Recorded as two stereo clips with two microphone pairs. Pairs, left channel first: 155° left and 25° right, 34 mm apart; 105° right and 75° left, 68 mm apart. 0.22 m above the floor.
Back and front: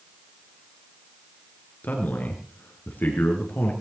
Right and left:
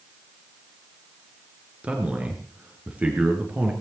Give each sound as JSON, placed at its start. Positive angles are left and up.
{"t": 1.8, "sound": "a man speaking", "azimuth_deg": 145, "distance_m": 3.5}